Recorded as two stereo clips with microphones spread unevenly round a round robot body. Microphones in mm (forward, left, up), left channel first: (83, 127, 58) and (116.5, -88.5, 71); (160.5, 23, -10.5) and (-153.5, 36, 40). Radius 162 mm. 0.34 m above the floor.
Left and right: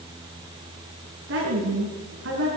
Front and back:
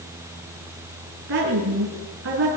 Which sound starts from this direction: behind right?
A woman speaking, at 1.3 s.